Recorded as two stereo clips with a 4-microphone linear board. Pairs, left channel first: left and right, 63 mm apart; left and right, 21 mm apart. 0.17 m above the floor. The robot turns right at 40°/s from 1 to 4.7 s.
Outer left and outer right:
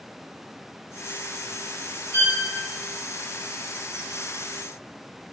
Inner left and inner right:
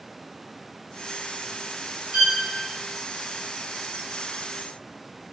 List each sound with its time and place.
2.1 s a violin: 30° right (ahead or behind), 0.7 m; by 2.4 s 35° right (ahead or behind), 0.7 m